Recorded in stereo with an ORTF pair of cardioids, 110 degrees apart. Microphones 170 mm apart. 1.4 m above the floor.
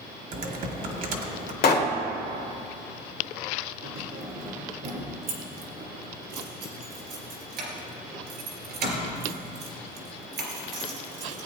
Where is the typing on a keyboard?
55° right, 1.6 m.